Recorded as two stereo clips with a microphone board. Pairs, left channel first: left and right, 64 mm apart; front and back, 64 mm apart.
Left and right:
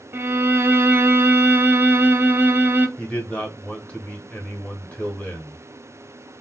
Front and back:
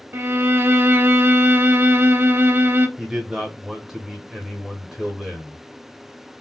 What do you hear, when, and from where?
0.1 s a violin: 135° right, 0.5 m
3.0 s a man speaking: 110° left, 1.2 m